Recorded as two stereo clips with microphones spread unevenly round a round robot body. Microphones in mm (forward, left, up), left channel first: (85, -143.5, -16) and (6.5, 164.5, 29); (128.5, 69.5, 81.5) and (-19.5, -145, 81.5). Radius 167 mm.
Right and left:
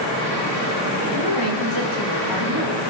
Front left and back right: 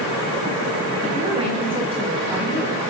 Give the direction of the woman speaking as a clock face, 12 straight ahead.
2 o'clock.